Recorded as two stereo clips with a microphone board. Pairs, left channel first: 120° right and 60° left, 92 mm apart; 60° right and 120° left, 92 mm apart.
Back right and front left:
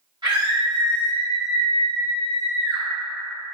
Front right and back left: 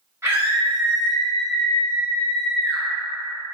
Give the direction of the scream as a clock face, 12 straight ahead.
10 o'clock.